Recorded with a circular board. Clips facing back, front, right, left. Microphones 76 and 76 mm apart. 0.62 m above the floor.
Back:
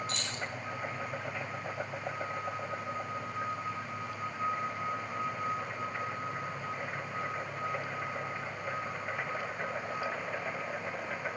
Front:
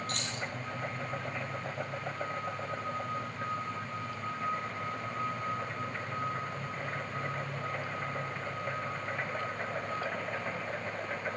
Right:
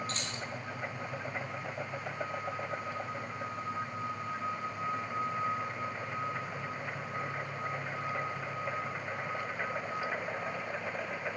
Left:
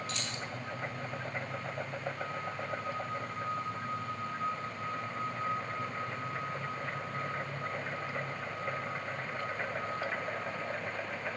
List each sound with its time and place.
0.1 s keys jangling: 40° right, 4 m